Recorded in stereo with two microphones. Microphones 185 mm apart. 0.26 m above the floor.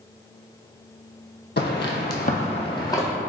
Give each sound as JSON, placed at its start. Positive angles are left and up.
{"t": 1.6, "sound": "footsteps", "side_deg": 65, "distance_m": 0.6}